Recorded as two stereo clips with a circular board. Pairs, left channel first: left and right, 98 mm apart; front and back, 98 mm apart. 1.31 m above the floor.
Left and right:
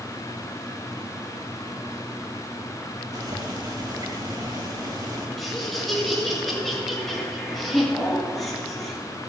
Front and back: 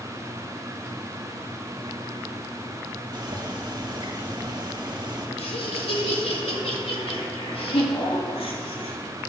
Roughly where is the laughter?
Ahead.